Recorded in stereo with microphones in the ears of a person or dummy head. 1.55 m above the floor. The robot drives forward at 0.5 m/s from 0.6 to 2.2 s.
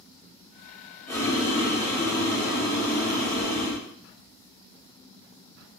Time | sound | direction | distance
1.1 | boiling | 10° left (ahead or behind) | 1.6 m